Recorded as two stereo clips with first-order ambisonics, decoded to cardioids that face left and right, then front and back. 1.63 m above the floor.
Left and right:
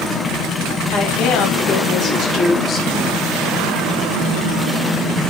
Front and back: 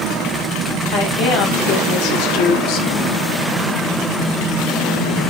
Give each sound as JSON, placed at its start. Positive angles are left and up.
{"t": 0.9, "sound": "a woman speaking", "azimuth_deg": 35, "distance_m": 4.0}